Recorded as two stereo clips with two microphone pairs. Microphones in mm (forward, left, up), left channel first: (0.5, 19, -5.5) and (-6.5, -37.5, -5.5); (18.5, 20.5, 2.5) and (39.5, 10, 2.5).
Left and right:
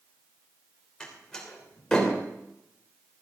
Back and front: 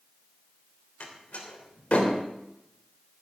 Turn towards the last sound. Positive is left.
turn(degrees=160)